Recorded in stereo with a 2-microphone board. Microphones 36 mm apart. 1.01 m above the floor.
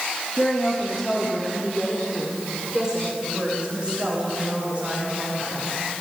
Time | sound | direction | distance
0.4 | a woman speaking | 25° left (ahead or behind) | 2.5 m